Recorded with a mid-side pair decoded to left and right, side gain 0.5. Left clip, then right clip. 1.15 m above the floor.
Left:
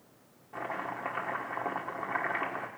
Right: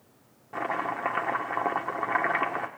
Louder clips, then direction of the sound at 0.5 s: Right 6 dB; 45° right.